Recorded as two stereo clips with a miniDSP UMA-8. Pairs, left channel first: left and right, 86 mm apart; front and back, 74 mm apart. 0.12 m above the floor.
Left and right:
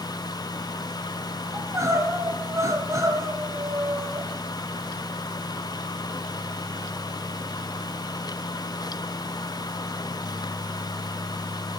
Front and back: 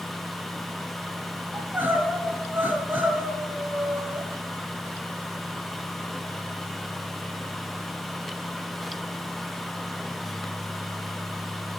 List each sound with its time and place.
1.5 s crying: 125° right, 2 m